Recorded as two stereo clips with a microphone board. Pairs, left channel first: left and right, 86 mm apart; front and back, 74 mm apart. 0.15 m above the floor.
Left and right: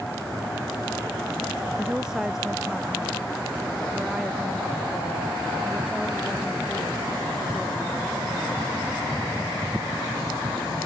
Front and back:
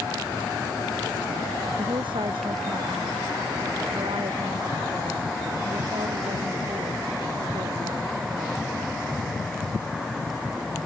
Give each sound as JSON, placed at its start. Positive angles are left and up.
{"t": 1.8, "sound": "a woman speaking", "azimuth_deg": -170}